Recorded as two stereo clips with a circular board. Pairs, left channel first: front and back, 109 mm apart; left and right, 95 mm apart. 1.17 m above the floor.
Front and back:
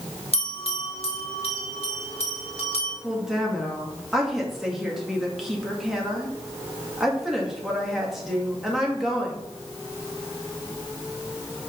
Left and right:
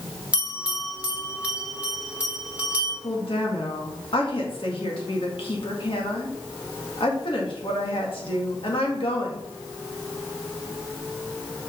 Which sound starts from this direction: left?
A woman speaking, at 3.0 s.